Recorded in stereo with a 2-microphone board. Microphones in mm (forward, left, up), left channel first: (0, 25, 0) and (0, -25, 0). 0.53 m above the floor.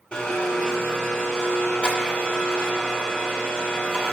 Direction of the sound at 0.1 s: 15° left (ahead or behind).